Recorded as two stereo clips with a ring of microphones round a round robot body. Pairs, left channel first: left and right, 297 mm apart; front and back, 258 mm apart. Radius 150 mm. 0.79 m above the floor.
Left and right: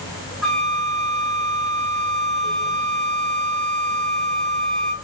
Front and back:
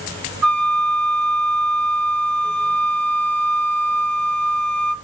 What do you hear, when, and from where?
0.4 s a flute: straight behind, 1.1 m